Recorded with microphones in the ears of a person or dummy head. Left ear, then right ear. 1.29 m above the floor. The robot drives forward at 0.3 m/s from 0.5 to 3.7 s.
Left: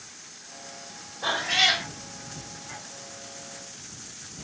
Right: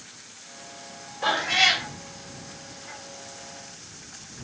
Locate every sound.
1.2 s a cat meowing: 55° right (ahead or behind), 1.6 m; by 1.9 s 50° right (ahead or behind), 1.7 m